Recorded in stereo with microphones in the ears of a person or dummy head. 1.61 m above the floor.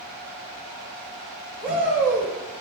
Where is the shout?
5° right (ahead or behind), 5 m.